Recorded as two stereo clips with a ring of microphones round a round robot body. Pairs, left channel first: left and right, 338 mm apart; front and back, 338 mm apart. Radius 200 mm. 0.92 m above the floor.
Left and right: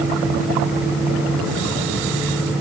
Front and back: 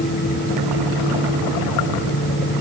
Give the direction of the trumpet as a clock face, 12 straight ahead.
I don't hear a trumpet.